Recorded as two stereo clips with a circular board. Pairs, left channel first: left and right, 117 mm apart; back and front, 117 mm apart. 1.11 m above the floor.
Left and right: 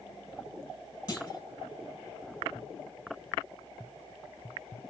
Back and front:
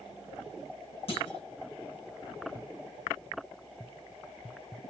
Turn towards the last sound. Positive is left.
turn(degrees=145)